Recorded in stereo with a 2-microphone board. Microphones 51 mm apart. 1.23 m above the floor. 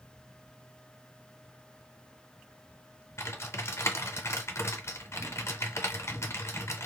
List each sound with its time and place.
3.2 s typing on a keyboard: 60° left (ahead or behind), 0.6 m